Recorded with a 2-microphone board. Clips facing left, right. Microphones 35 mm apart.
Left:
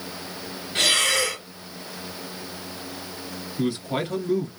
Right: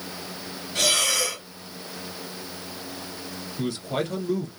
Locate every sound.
0.8 s breathing: 35° left (ahead or behind), 1.7 m
3.6 s a man speaking: 15° left (ahead or behind), 1.7 m